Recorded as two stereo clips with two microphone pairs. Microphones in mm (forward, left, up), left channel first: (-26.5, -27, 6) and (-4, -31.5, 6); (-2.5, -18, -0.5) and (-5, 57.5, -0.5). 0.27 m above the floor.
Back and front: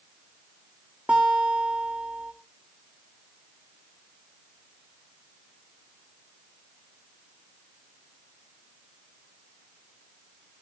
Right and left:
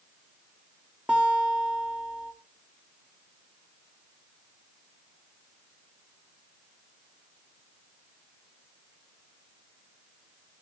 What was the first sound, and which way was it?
A guitar, 20° left.